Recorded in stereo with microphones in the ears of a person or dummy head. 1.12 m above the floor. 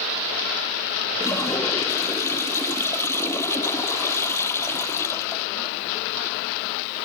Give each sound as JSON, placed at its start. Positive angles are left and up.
{"t": 1.2, "sound": "a toilet flushing", "side_deg": 15}